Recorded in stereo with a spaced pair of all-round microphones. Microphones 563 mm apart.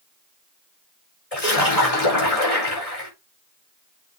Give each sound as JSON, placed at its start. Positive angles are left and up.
{"t": 1.3, "sound": "a splash", "side_deg": 75, "distance_m": 4.5}